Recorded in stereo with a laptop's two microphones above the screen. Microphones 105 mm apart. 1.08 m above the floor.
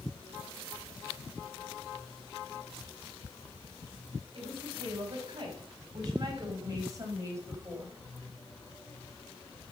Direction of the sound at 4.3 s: 50° right (ahead or behind).